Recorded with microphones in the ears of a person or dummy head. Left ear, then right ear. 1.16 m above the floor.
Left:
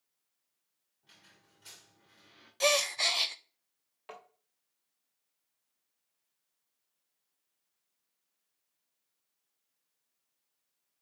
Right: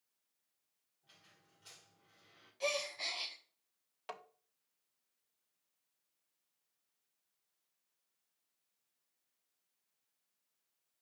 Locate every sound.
1.0 s a squeak: 15° left (ahead or behind), 2.5 m
2.6 s a gasp: 45° left (ahead or behind), 0.5 m
4.1 s tapping: 25° right (ahead or behind), 1.2 m